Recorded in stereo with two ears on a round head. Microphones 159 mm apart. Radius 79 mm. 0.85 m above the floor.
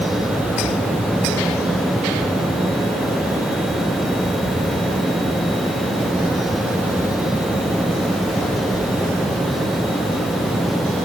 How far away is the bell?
No bell in this recording.